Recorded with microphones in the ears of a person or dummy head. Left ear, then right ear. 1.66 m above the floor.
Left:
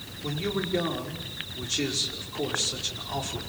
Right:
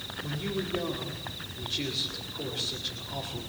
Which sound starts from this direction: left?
A man speaking, at 0.2 s.